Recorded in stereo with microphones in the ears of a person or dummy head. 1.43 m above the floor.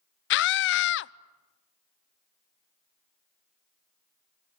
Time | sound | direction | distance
0.3 | a scream | 60° left (ahead or behind) | 0.7 m